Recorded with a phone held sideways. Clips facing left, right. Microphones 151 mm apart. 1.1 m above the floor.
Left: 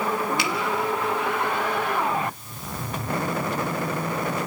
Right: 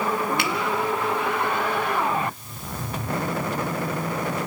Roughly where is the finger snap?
Right.